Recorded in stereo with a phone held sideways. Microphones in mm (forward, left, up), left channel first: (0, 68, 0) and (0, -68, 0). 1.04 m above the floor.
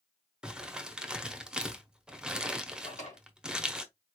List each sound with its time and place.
0.4 s crumpling: 5° right (ahead or behind), 0.8 m
2.8 s a drawer: 75° left (ahead or behind), 2 m